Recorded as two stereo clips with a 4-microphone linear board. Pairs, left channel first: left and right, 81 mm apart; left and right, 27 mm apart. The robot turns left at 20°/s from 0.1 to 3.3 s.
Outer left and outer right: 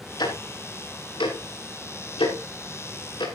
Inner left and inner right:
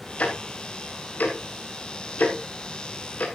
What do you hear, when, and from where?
0.2 s ticking: 55° left (ahead or behind), 4 m; by 3.2 s 60° left (ahead or behind), 4 m